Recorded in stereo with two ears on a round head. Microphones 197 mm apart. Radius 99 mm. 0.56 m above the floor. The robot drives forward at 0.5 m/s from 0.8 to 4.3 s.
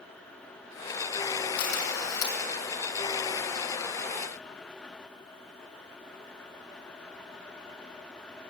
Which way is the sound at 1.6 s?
80° left.